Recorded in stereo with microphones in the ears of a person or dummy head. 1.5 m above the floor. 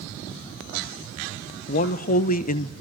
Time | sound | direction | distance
1.7 | a man speaking | 50° left (ahead or behind) | 1.1 m